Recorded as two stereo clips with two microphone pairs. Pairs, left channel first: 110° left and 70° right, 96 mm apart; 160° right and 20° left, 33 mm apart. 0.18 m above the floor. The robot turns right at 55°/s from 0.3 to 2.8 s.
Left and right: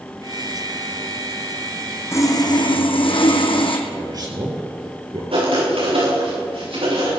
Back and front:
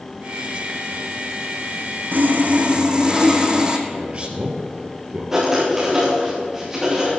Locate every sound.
2.1 s sawing: 45° left, 2.5 m; by 3.8 s 85° left, 2.5 m
3.9 s a man speaking: 30° right, 4 m
5.3 s writing: 55° right, 7 m